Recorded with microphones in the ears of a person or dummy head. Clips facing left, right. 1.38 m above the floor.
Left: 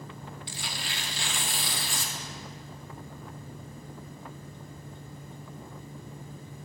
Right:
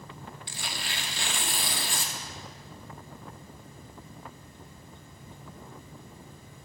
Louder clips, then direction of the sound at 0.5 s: Right 2 dB; 50° right (ahead or behind).